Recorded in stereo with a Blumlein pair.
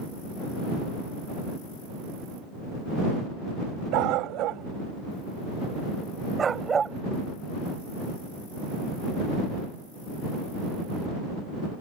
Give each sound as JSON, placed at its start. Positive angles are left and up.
{"t": 3.9, "sound": "a dog barking", "azimuth_deg": -40}